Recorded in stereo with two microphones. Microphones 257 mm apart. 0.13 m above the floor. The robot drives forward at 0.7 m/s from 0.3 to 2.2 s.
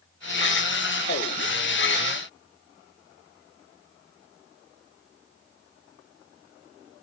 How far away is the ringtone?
I don't hear a ringtone.